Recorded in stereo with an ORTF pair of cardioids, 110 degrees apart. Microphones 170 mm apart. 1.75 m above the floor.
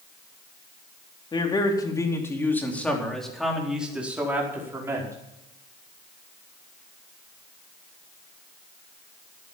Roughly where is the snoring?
No snoring in this recording.